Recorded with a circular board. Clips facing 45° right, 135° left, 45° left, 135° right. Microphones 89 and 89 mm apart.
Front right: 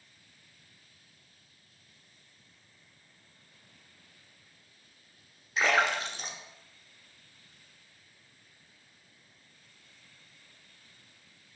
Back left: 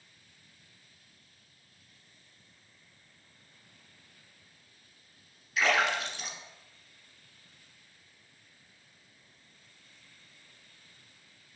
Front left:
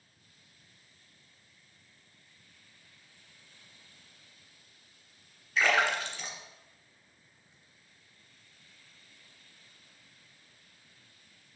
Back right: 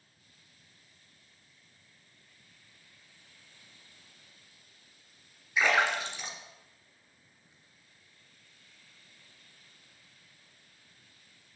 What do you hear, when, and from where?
5.6 s a splash: 70° right, 1.4 m